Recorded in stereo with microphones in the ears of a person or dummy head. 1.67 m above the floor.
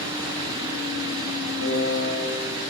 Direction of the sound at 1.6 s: 65° left (ahead or behind).